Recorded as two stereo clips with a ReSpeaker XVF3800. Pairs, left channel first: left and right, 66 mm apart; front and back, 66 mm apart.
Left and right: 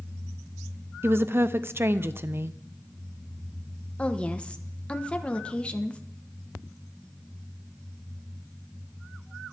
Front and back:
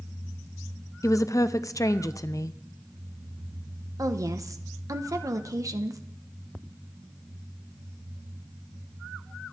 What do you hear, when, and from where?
1.0 s a woman speaking: 35° right, 0.6 m
4.0 s a woman speaking: 160° left, 1.1 m